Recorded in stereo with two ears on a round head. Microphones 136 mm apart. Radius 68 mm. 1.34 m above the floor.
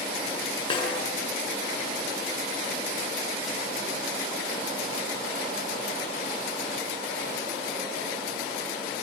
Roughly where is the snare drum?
Left.